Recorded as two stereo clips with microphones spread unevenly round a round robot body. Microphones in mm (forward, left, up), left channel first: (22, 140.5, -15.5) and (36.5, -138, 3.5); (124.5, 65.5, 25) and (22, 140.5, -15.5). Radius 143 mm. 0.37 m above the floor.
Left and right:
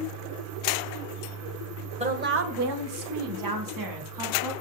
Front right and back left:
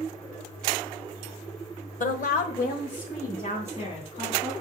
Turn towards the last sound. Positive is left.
turn(degrees=-115)